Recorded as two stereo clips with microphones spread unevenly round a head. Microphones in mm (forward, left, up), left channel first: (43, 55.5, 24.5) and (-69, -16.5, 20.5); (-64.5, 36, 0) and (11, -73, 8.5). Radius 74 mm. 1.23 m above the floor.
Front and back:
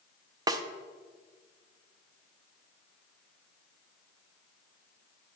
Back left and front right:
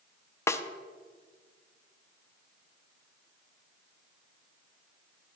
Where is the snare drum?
Straight behind, 0.5 m.